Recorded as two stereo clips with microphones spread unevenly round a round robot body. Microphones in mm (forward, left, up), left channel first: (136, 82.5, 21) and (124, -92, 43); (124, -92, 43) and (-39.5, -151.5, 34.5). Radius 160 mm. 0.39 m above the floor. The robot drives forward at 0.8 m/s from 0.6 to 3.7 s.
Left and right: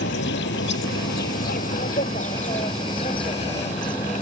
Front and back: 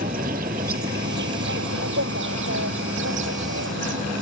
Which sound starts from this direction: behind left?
An insect, at 0.0 s.